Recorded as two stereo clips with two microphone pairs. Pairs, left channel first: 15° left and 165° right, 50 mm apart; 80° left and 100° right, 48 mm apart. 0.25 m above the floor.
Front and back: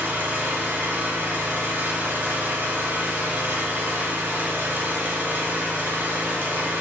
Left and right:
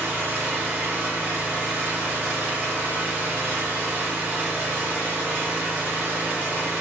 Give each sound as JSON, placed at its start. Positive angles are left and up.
{"t": 0.0, "sound": "an engine running", "azimuth_deg": -125, "distance_m": 1.0}